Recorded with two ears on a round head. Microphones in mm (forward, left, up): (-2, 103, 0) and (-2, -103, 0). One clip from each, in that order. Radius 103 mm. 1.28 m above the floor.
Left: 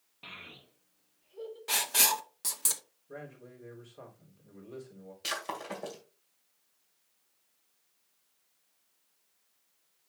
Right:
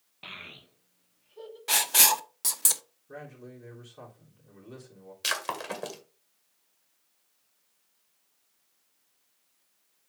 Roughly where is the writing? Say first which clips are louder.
Right 5 dB; centre.